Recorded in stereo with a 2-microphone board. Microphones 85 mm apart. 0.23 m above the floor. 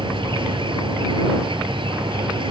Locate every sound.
0.0 s an insect: 80° right